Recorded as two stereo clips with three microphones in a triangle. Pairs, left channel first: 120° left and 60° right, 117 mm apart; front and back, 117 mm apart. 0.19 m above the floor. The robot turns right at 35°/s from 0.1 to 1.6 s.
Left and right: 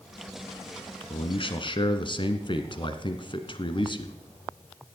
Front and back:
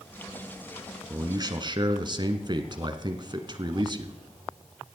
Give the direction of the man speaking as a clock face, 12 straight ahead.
8 o'clock.